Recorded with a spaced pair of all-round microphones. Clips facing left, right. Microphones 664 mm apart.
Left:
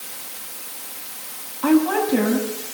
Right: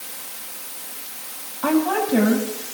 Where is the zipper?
No zipper in this recording.